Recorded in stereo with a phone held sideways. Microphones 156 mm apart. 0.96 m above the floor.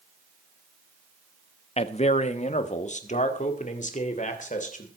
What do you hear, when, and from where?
1.8 s a man speaking: 40° left (ahead or behind), 0.9 m; by 4.9 s 55° left (ahead or behind), 3 m